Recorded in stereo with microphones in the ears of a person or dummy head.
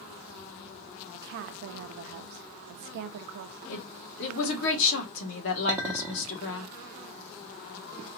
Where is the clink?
15° right (ahead or behind), 0.9 m.